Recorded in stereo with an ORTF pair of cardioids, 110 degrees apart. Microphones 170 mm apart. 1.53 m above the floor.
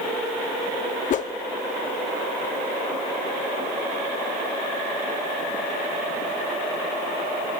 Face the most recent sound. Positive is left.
turn(degrees=45)